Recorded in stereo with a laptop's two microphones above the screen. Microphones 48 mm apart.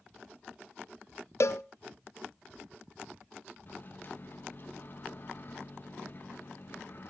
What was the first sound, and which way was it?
A cowbell, 65° left (ahead or behind).